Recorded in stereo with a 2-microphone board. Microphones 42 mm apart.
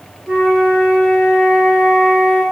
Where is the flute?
55° right (ahead or behind), 4.5 m.